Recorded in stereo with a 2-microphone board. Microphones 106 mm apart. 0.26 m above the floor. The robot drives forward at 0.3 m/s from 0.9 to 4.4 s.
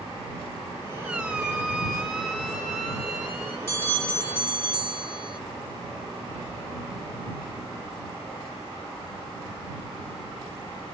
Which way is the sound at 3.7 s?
20° left (ahead or behind).